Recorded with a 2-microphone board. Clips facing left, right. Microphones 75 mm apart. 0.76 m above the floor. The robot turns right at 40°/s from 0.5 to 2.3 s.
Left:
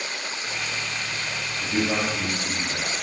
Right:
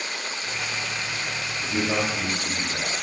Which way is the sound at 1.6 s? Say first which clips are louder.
Left 1 dB; 20° left (ahead or behind).